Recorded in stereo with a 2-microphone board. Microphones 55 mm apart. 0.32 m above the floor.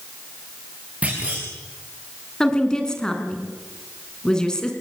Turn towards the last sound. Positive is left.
turn(degrees=10)  # may be behind; listen again after turning